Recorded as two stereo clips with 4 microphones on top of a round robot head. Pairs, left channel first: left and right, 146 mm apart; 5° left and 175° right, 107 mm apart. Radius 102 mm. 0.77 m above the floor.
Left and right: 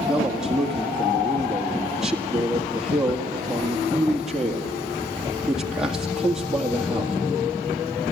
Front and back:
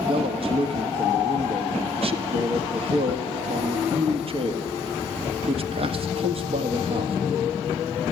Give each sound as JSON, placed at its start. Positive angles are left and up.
{"t": 0.1, "sound": "a man speaking", "azimuth_deg": -175, "distance_m": 1.8}